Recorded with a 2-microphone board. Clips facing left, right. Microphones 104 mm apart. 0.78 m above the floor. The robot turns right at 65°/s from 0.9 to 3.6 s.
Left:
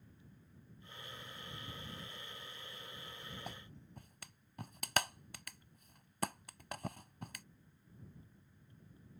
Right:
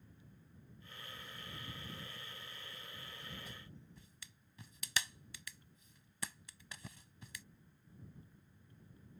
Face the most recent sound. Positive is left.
turn(degrees=55)  # may be behind; listen again after turning